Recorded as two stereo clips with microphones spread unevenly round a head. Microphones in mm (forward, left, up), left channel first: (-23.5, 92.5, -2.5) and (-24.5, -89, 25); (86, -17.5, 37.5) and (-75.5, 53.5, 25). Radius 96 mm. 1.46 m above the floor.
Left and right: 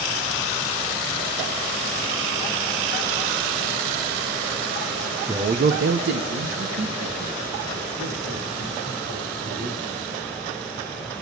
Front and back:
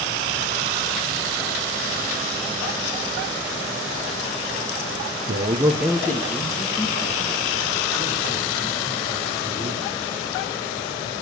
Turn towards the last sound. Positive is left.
turn(degrees=-80)